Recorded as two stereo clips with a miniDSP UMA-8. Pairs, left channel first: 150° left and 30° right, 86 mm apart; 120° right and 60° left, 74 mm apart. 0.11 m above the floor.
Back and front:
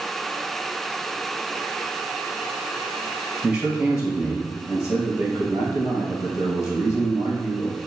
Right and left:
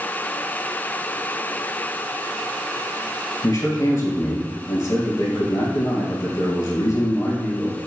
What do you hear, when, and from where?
3.4 s a man speaking: 105° right, 1.8 m